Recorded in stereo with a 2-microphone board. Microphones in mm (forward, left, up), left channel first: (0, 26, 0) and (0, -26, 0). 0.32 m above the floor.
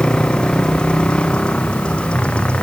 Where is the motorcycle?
15° left (ahead or behind); by 2.6 s 20° left (ahead or behind).